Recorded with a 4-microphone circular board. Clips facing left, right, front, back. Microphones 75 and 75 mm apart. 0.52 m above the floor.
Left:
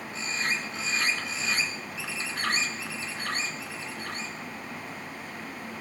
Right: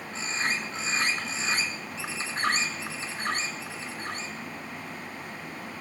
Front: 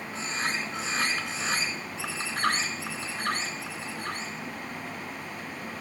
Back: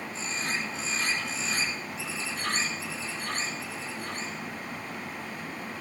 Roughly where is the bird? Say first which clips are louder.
Right 1 dB, front 3 dB; ahead right.